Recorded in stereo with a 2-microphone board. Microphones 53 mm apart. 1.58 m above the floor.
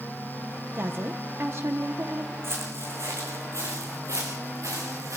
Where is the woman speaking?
50° right (ahead or behind), 1.1 m.